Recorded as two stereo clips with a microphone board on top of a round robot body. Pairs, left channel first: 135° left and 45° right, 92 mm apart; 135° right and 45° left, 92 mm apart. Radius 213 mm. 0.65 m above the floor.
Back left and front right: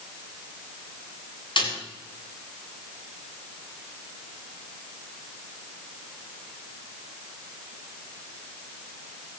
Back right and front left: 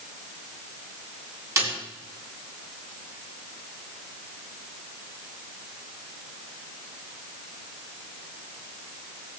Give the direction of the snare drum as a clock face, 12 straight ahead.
9 o'clock.